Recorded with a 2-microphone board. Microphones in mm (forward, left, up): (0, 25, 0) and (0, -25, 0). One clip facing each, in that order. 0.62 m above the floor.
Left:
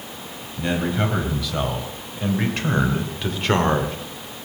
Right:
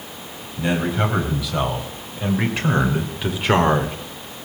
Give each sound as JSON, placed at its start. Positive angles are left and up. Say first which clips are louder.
{"t": 0.6, "sound": "a man speaking", "louder": "right 2 dB", "side_deg": -5, "distance_m": 3.5}